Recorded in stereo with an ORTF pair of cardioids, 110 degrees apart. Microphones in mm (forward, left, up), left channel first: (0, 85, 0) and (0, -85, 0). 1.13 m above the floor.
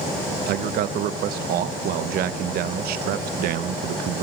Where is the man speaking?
65° right, 0.7 m.